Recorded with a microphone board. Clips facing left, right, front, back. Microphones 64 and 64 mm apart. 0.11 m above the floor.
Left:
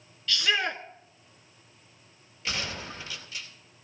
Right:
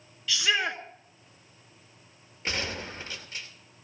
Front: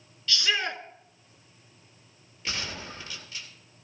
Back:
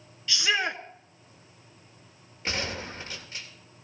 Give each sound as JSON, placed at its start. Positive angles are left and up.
{"t": 0.3, "sound": "a shout", "azimuth_deg": -160, "distance_m": 1.1}
{"t": 2.5, "sound": "a gunshot", "azimuth_deg": -130, "distance_m": 3.0}